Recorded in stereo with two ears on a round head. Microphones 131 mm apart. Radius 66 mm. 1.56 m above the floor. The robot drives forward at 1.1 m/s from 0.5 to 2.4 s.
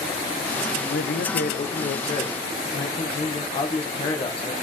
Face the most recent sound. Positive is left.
turn(degrees=40)  # may be behind; listen again after turning